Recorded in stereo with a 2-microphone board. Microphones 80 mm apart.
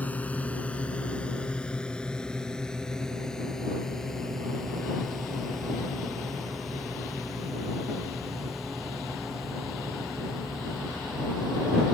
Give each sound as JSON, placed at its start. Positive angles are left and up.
{"t": 0.0, "sound": "a drone", "side_deg": 20}